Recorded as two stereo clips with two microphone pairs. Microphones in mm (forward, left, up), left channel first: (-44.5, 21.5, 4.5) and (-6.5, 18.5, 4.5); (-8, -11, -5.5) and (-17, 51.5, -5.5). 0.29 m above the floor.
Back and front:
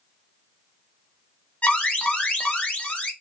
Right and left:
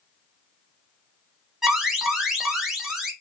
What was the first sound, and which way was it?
An alarm, 175° left.